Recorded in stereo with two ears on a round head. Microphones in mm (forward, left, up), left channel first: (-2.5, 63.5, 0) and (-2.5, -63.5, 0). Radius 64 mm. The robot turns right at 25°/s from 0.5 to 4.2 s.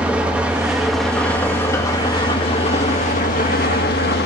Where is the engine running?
10° right, 2 m; by 4.3 s 80° left, 2 m.